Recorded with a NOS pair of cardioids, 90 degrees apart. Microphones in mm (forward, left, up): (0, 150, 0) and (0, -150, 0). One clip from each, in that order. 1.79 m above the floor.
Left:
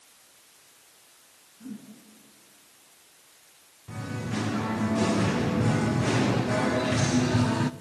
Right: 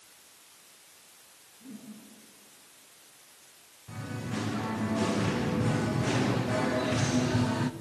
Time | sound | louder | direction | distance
1.6 | a whoosh | left 5 dB | 60° left | 7.5 m
3.9 | singing | left 3 dB | 20° left | 0.8 m